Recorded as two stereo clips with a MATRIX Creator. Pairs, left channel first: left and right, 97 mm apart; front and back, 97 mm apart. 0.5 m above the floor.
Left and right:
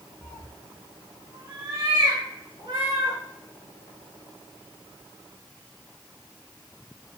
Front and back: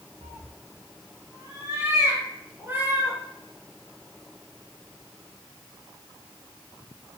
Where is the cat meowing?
155° left, 0.6 m; by 3.2 s 110° right, 2.5 m.